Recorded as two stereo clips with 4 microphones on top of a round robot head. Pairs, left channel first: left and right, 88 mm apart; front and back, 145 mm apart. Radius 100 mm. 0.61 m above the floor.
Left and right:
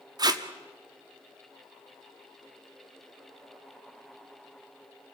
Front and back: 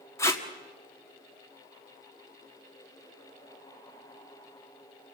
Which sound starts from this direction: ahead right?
Tape being pulled, at 0.2 s.